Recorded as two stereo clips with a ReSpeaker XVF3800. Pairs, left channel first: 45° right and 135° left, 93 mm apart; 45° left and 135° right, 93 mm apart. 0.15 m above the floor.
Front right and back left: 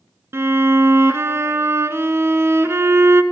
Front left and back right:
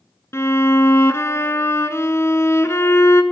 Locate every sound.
0.3 s a violin: 90° left, 0.7 m